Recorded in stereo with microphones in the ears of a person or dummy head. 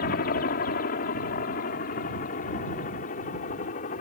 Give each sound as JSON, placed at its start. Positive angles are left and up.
{"t": 0.0, "sound": "a helicopter", "side_deg": 45}